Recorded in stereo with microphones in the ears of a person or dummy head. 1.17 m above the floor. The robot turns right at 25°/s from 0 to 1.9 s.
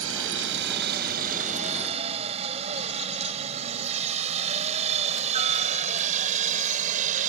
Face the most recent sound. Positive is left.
turn(degrees=-45)  # may be behind; listen again after turning